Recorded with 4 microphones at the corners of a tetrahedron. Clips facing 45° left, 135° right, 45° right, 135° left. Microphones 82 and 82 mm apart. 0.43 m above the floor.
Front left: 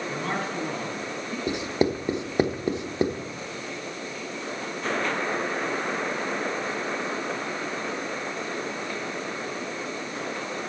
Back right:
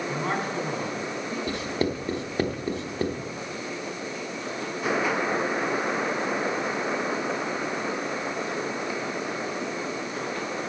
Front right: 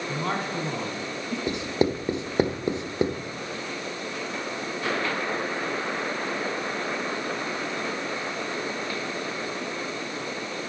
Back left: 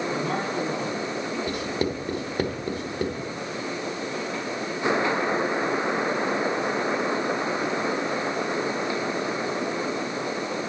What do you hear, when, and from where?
0.1 s a man speaking: 60° right, 4 m
1.5 s writing: 5° right, 0.8 m